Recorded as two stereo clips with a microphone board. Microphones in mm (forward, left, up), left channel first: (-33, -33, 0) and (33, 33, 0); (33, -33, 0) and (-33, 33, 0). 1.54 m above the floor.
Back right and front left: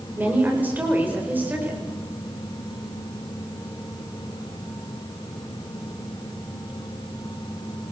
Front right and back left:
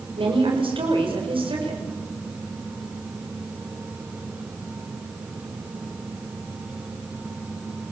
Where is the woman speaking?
115° left, 6.5 m.